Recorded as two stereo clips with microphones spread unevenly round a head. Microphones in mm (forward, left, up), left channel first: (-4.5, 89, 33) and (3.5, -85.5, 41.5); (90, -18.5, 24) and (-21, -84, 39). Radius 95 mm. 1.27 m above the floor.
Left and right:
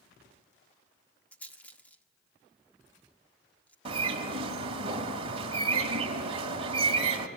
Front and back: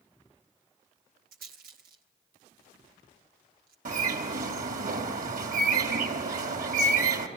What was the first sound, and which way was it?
A rattle, 175° left.